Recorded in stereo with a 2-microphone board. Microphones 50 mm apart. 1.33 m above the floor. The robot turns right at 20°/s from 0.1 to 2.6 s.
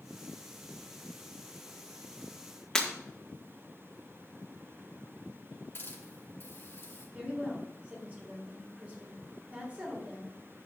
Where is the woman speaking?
25° right (ahead or behind), 4 m.